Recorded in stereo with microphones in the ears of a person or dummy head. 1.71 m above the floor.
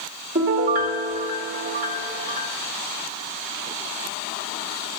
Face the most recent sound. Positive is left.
turn(degrees=-45)  # may be behind; listen again after turning